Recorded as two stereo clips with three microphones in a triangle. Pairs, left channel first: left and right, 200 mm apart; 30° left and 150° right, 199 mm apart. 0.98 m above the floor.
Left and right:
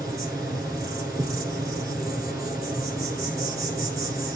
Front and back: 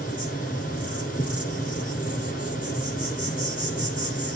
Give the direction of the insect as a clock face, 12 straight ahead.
12 o'clock.